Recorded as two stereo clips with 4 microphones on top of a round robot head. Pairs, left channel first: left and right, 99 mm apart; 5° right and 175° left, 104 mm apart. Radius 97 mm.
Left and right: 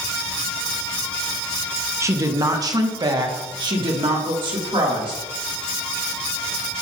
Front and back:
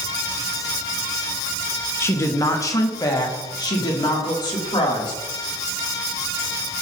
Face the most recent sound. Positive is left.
turn(degrees=-55)